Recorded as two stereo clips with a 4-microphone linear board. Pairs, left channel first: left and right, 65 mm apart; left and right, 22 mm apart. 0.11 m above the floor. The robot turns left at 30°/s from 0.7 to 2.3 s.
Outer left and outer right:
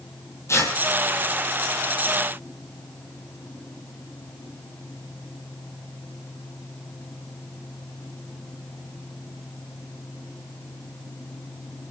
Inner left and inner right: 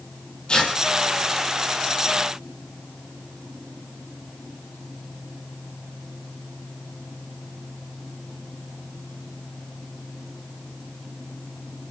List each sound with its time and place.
0.5 s tearing paper: 45° left (ahead or behind), 3.5 m